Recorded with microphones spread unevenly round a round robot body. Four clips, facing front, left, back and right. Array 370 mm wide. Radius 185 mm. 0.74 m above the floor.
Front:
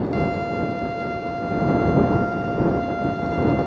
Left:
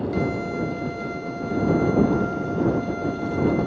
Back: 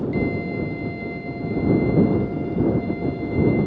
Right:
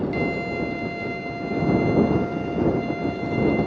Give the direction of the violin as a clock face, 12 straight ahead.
12 o'clock.